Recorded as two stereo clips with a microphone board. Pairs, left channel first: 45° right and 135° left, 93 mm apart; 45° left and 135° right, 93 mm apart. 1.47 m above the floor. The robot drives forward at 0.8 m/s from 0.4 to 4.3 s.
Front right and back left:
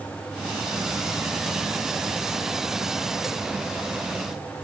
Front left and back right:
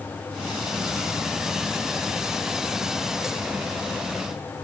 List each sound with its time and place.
Only background noise.